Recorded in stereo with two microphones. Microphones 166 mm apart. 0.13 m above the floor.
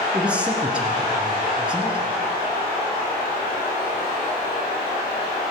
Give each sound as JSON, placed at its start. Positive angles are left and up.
{"t": 0.1, "sound": "a man speaking", "side_deg": -5, "distance_m": 1.6}